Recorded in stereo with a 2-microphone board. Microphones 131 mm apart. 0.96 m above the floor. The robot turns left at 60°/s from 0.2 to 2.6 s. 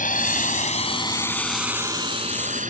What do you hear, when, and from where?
0.0 s a drone: 80° left; by 2.7 s 70° right (ahead or behind)